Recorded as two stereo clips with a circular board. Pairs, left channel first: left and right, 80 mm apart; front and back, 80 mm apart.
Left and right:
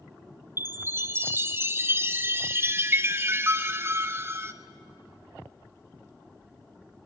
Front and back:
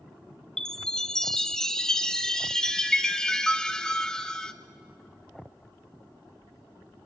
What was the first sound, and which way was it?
A chime, 75° right.